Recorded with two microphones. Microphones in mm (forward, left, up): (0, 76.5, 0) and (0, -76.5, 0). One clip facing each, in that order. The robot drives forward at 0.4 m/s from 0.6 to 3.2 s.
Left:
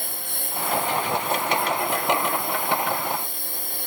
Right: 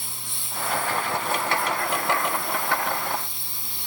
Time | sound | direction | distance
0.0 | a lawn mower | 55° left (ahead or behind) | ?